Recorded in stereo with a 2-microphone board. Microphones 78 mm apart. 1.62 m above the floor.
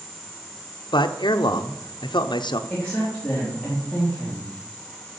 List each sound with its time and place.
0.9 s a man speaking: 75° left (ahead or behind), 0.9 m
2.7 s a woman speaking: 15° left (ahead or behind), 3.5 m